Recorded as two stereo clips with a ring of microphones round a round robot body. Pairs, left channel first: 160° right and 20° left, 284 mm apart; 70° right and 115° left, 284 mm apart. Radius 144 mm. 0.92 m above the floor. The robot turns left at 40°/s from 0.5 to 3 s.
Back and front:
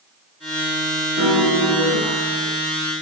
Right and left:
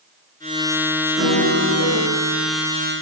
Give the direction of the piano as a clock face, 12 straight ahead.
10 o'clock.